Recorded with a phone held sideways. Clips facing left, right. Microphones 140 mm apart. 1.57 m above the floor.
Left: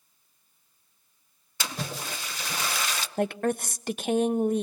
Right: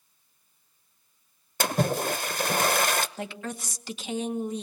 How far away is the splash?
About 0.8 m.